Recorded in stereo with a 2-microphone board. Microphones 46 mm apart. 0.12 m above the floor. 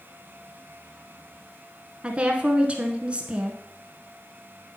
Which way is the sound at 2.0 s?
25° right (ahead or behind).